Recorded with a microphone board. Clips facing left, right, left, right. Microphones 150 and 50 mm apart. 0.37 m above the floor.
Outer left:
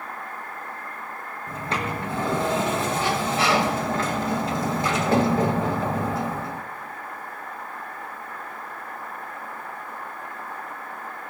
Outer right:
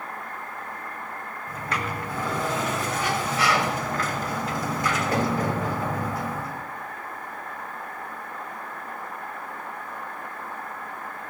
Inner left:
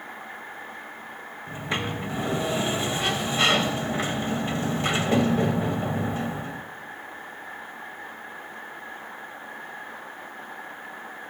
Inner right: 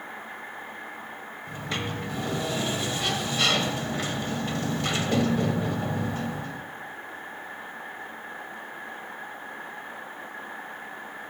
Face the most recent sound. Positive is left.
turn(degrees=25)  # may be behind; listen again after turning